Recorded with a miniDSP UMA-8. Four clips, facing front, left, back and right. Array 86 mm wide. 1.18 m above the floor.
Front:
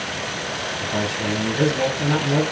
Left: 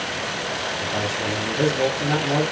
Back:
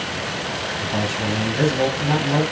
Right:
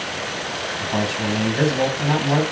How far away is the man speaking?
About 1.6 m.